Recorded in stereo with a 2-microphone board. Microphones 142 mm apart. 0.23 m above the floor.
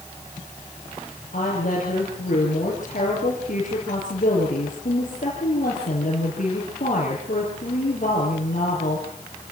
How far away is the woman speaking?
About 6 m.